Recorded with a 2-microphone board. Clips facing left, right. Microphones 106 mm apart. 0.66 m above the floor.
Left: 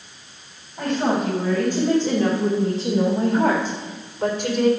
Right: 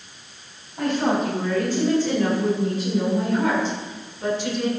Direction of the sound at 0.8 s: 10° left (ahead or behind).